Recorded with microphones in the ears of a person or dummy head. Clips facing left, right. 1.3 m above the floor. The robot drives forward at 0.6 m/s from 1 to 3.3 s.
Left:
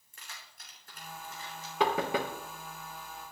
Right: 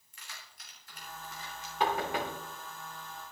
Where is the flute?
I don't hear a flute.